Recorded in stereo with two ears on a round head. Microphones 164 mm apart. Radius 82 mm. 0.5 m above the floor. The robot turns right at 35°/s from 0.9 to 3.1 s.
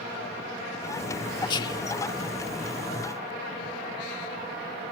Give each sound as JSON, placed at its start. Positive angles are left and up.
{"t": 1.5, "sound": "whispering", "side_deg": 25}